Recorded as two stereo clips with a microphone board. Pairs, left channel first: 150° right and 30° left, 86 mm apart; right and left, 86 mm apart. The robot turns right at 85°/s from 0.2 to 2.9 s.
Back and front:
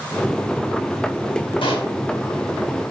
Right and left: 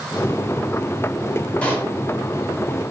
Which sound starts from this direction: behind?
A pop, at 1.6 s.